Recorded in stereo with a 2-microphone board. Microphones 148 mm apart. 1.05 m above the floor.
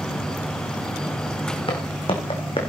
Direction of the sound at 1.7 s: 40° left (ahead or behind).